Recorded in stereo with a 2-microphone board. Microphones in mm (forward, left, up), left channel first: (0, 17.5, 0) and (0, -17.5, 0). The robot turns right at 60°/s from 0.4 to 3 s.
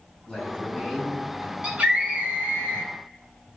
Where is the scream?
150° right, 1.9 m; by 2.9 s 75° right, 1.9 m.